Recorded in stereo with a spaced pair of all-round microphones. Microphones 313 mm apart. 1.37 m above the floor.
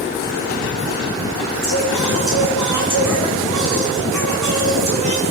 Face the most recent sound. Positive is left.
turn(degrees=-65)  # may be behind; listen again after turning